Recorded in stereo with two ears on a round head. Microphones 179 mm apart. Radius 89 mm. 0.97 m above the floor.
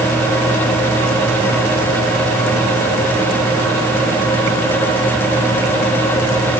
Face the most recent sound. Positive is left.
No sound to turn to.